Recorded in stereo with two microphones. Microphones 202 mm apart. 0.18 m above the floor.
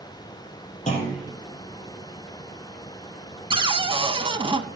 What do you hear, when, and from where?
0.9 s a clunk: 35° left (ahead or behind), 5 m
3.5 s a cupboard door: 25° right (ahead or behind), 0.7 m